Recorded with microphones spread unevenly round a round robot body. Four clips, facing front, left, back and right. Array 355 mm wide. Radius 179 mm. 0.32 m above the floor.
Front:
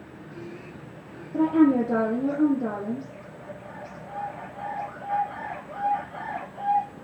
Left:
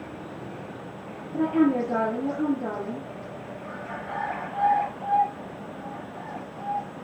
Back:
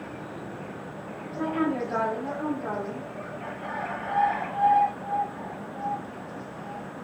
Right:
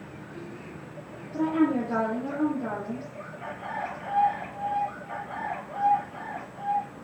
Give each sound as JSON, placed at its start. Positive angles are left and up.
{"t": 1.3, "sound": "a woman speaking", "azimuth_deg": 5, "distance_m": 7.0}